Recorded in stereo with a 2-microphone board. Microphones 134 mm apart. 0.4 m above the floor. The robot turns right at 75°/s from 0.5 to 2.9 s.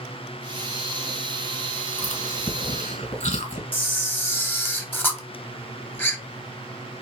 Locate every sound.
2.0 s chewing: 45° left (ahead or behind), 2.0 m; by 3.6 s 65° left (ahead or behind), 2.0 m
3.7 s a camera shutter: 15° left (ahead or behind), 0.7 m